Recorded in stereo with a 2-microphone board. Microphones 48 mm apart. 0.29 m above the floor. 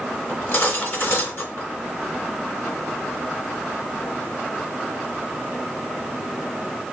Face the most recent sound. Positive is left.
turn(degrees=50)  # may be behind; listen again after turning